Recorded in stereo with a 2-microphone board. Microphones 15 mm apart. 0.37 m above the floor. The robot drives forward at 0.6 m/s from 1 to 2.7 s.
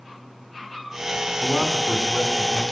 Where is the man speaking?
50° right (ahead or behind), 3 m; by 2.6 s 45° right (ahead or behind), 3.5 m.